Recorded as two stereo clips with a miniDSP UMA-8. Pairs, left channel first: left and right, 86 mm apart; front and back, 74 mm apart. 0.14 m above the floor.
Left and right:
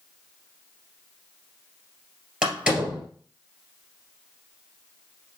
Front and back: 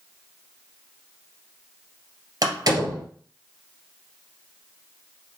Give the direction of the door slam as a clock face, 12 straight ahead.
6 o'clock.